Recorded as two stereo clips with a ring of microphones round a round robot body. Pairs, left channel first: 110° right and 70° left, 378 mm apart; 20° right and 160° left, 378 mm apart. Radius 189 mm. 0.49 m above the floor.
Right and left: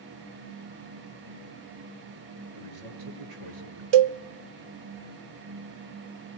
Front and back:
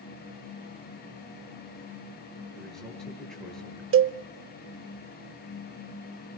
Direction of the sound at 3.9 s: 100° left.